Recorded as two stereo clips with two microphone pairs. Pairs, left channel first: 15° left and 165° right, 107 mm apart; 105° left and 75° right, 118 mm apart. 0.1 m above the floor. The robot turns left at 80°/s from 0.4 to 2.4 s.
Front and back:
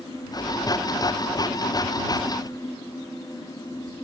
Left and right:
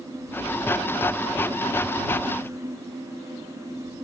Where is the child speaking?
No child speaking in this recording.